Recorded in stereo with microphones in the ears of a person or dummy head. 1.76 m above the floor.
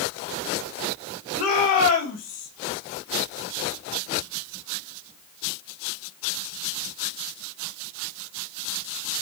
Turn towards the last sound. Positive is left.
turn(degrees=45)  # may be behind; listen again after turning